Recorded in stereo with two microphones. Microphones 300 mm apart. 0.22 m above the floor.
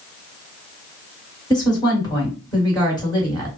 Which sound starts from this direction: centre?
A woman speaking, at 1.5 s.